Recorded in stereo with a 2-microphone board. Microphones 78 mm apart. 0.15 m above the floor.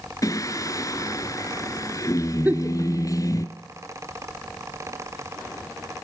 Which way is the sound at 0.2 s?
45° left (ahead or behind).